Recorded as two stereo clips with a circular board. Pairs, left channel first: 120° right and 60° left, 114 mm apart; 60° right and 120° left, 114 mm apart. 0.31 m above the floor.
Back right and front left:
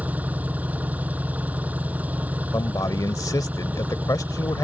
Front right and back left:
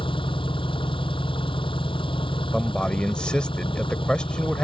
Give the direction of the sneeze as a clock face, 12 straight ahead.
No sneeze in this recording.